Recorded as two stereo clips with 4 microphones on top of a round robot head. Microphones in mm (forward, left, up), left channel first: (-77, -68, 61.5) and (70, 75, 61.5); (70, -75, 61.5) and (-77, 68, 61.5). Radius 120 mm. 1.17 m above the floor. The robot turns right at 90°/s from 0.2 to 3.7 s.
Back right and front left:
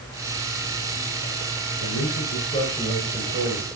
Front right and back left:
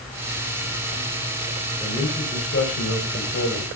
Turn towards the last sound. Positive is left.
turn(degrees=30)